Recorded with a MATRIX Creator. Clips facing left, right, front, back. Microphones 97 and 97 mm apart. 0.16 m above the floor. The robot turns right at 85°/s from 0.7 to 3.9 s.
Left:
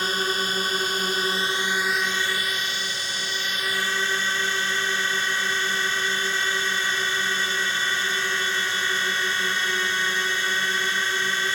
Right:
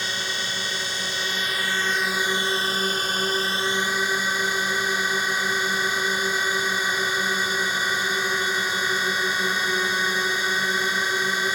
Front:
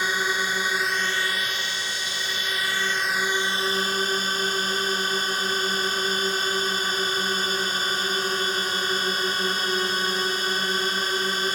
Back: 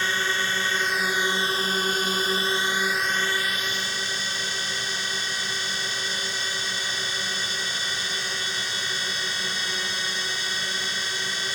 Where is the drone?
70° left; by 11.6 s 15° right.